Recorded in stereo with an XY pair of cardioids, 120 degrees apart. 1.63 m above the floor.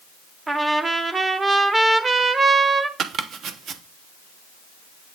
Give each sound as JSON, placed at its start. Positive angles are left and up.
{"t": 0.5, "sound": "a trumpet", "azimuth_deg": -20, "distance_m": 1.2}
{"t": 3.0, "sound": "chopping", "azimuth_deg": -50, "distance_m": 1.2}